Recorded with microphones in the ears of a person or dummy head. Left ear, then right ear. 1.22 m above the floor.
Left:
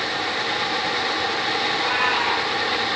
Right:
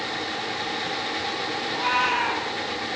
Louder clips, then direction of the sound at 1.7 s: Right 1 dB; 30° right (ahead or behind).